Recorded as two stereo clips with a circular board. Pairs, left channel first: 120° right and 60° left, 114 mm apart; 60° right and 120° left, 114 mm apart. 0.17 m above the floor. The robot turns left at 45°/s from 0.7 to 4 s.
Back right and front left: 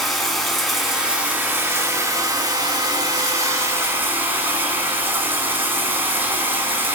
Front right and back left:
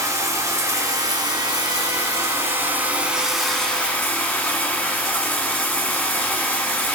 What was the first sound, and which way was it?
Running water, 155° left.